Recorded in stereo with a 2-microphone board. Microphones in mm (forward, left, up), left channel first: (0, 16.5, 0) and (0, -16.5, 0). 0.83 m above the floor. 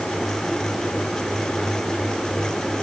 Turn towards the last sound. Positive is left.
No sound to turn to.